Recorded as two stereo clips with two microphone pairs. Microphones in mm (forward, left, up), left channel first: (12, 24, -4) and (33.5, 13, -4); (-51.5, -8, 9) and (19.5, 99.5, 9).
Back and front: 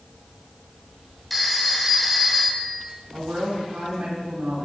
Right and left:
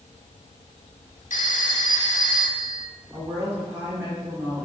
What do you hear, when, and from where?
1.3 s a phone ringing: 115° right, 0.9 m
3.1 s a woman speaking: 15° right, 2 m